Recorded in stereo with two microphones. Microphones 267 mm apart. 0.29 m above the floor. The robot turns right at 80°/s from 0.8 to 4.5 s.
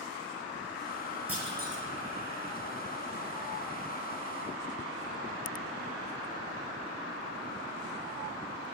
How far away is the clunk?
About 2.5 m.